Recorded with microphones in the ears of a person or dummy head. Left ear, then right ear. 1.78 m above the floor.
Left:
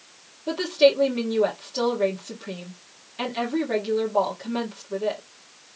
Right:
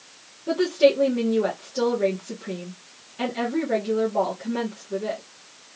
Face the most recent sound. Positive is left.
turn(degrees=25)  # may be behind; listen again after turning